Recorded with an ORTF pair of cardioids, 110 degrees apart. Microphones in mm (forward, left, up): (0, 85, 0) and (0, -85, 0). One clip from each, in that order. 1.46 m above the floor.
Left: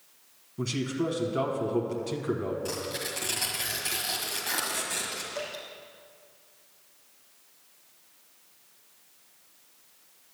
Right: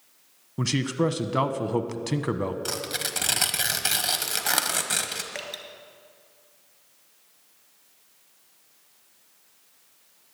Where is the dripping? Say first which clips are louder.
Even; 70° right, 2 m.